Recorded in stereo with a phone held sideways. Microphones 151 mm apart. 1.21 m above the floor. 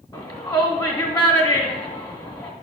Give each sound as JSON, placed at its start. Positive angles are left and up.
{"t": 0.1, "sound": "a shout", "side_deg": 30, "distance_m": 2.5}